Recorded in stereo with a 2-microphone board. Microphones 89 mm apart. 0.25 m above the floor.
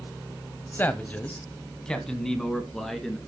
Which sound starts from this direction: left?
A man speaking, at 0.7 s.